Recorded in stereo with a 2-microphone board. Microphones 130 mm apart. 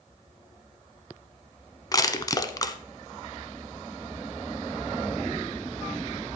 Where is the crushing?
25° left (ahead or behind), 0.7 m.